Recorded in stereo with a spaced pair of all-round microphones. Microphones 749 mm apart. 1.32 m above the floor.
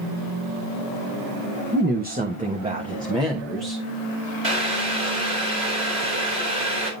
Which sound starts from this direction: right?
Boiling, at 4.4 s.